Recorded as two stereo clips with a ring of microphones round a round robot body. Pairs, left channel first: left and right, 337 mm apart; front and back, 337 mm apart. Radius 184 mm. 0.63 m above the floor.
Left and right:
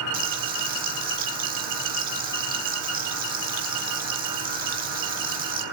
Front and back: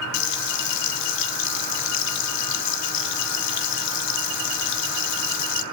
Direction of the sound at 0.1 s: 20° right.